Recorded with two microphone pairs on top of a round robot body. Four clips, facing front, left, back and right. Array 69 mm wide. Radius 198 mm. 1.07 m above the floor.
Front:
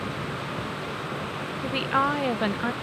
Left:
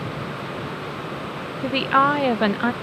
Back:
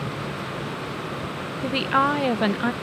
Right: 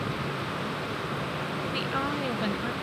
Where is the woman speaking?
100° left.